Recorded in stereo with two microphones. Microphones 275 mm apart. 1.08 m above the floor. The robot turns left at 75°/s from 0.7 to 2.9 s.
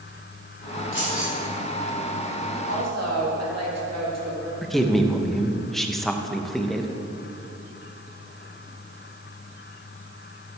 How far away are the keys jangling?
About 2.5 m.